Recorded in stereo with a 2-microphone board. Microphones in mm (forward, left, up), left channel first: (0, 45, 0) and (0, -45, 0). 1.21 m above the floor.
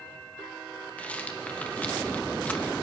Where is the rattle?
15° left (ahead or behind), 0.7 m.